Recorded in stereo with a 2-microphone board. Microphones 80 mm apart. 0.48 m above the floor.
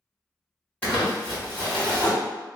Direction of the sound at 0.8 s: 20° left (ahead or behind).